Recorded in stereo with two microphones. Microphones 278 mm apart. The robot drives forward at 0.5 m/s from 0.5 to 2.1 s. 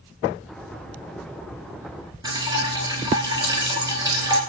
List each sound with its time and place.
2.2 s dripping: 15° right (ahead or behind), 1.0 m